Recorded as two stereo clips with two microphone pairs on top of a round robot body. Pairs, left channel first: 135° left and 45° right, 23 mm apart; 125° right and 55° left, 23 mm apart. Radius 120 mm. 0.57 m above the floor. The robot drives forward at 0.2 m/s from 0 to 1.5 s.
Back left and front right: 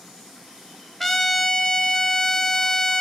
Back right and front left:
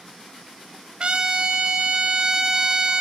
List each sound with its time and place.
1.0 s a trumpet: 75° left, 0.9 m; by 3.0 s 90° left, 0.9 m